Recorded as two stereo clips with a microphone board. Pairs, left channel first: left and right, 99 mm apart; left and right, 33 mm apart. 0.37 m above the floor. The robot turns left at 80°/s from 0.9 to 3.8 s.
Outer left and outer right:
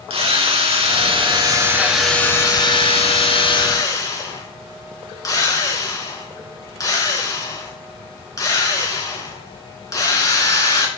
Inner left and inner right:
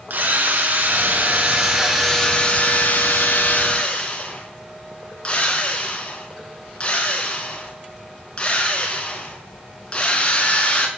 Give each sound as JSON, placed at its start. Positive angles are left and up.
{"t": 0.1, "sound": "a drill", "azimuth_deg": -90, "distance_m": 4.0}